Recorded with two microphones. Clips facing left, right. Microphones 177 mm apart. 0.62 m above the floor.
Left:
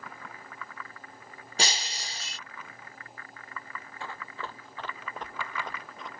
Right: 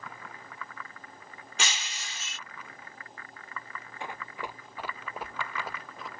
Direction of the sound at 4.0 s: 20° right (ahead or behind).